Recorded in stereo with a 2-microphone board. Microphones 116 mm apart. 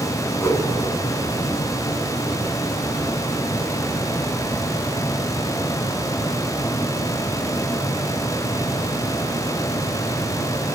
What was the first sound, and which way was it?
A whoosh, 25° left (ahead or behind).